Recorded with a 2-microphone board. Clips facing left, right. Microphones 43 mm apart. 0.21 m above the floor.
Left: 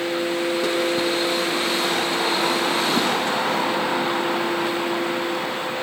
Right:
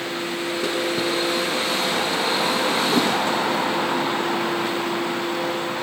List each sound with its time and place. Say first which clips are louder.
2.9 s a whoosh: right 1 dB; 10° right (ahead or behind), 1.7 m